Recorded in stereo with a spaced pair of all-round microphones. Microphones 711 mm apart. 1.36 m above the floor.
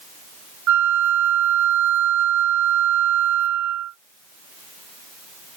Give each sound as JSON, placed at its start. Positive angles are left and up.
{"t": 0.7, "sound": "a flute", "side_deg": -55}